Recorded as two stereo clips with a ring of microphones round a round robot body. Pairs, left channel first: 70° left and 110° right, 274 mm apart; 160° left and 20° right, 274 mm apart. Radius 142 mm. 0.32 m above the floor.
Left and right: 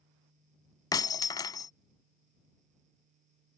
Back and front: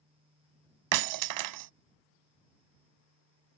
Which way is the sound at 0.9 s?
10° right.